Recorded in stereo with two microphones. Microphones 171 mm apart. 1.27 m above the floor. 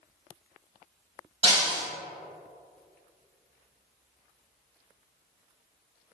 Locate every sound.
1.4 s breaking glass: 40° right (ahead or behind), 1.9 m